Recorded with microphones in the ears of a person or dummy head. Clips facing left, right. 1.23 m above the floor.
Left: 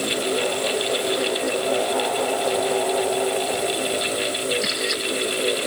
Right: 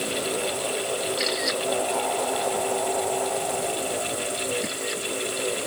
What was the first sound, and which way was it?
Only background noise.